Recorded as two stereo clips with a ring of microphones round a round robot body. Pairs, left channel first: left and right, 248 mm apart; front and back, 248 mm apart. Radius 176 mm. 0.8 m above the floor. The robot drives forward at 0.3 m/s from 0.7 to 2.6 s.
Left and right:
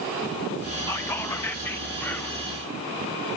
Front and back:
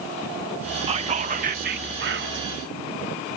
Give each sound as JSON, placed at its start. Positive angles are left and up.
{"t": 0.9, "sound": "whispering", "azimuth_deg": 155, "distance_m": 0.8}